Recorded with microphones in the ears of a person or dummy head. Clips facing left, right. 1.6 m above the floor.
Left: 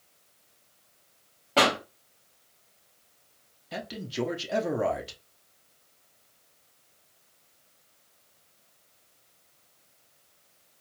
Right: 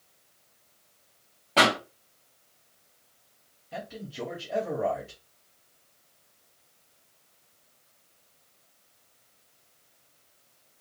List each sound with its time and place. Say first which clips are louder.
1.6 s a pop: even; centre (ahead or behind), 1.4 m
3.7 s a man speaking: left 4 dB; 75° left (ahead or behind), 0.8 m